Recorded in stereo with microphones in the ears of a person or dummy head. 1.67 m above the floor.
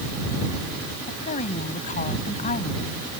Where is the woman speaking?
45° left (ahead or behind).